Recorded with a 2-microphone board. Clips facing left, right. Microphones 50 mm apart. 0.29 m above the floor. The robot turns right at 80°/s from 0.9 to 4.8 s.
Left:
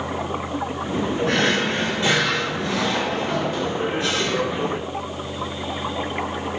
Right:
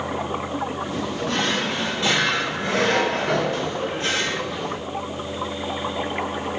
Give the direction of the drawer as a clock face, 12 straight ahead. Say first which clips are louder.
Left 3 dB; 9 o'clock.